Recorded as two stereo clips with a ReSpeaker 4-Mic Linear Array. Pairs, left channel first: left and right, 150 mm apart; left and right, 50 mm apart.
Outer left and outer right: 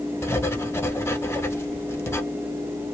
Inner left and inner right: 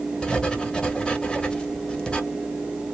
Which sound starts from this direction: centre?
Writing, at 0.2 s.